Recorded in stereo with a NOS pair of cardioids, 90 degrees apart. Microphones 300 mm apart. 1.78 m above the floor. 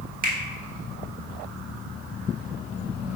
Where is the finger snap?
30° right, 1.2 m.